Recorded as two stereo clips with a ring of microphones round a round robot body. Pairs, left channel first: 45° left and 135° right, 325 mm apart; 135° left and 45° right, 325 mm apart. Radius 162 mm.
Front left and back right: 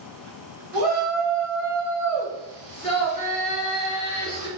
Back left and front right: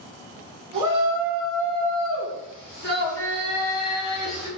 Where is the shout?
85° right, 1.3 m; by 4.5 s 100° left, 2 m.